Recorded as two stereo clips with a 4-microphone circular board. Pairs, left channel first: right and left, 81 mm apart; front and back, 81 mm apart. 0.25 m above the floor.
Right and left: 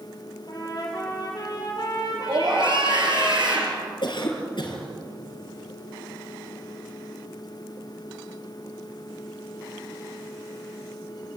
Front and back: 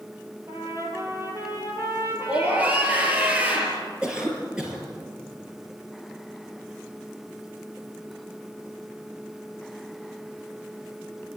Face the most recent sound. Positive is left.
turn(degrees=-100)